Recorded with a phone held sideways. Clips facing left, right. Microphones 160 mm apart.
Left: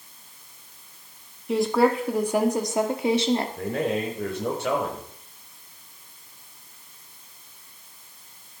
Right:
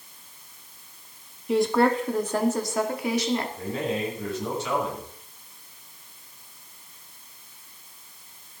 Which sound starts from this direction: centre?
A woman speaking, at 1.5 s.